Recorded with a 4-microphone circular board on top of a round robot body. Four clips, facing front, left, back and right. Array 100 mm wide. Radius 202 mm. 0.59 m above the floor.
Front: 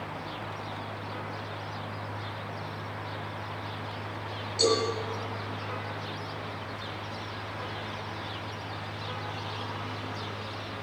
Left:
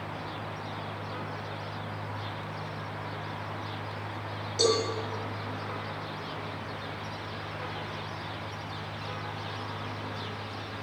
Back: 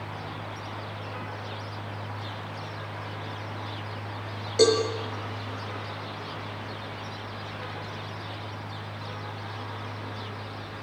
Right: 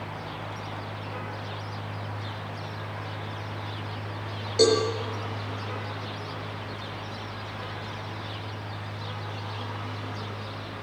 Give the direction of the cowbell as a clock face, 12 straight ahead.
5 o'clock.